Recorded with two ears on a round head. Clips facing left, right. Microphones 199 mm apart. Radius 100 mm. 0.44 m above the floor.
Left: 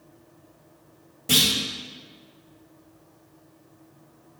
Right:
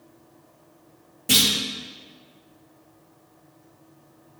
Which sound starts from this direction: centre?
A clunk, at 1.3 s.